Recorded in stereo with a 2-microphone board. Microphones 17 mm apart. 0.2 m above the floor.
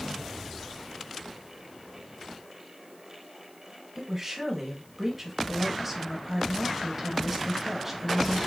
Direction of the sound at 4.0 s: 15° right (ahead or behind).